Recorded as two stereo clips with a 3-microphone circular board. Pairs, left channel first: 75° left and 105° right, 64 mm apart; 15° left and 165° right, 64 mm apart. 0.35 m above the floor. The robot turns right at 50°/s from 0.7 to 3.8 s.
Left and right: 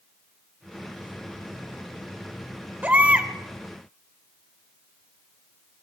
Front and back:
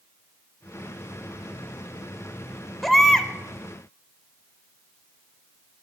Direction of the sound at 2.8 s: 70° right.